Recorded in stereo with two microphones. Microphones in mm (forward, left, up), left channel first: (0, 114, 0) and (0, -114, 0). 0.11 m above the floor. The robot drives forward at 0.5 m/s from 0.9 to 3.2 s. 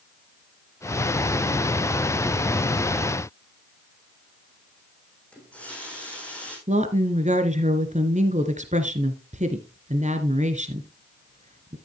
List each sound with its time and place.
5.3 s a running tap: 5° left (ahead or behind), 4.5 m
6.7 s a woman speaking: 30° right (ahead or behind), 1.5 m